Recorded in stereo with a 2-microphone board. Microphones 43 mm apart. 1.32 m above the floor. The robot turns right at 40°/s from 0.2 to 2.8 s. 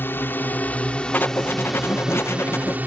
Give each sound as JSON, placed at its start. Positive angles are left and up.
{"t": 0.0, "sound": "a drone", "azimuth_deg": 120}
{"t": 1.1, "sound": "writing", "azimuth_deg": 50}